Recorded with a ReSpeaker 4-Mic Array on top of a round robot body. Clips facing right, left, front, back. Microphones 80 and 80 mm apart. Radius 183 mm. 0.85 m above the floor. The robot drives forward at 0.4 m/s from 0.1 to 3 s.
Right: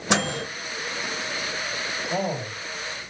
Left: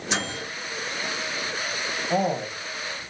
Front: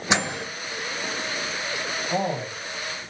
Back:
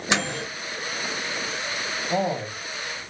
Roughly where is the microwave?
Right.